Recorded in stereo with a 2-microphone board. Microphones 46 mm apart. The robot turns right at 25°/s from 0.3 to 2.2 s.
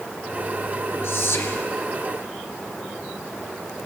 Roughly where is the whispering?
Left.